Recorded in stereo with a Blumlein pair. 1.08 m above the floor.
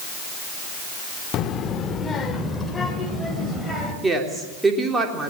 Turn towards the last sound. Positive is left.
turn(degrees=-10)